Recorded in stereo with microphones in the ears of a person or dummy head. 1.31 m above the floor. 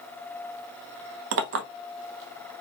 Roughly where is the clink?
Right.